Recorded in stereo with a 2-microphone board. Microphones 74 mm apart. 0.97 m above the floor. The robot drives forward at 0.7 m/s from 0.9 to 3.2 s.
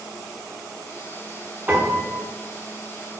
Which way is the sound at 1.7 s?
20° right (ahead or behind).